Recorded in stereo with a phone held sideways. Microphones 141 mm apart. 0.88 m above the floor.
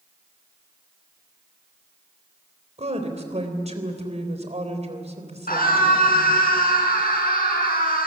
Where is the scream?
85° left, 8.5 m.